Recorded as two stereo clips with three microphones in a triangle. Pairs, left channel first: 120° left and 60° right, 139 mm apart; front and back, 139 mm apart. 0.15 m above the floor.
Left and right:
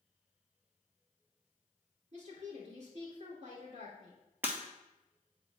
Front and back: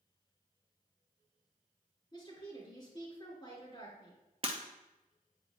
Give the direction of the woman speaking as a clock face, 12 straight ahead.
2 o'clock.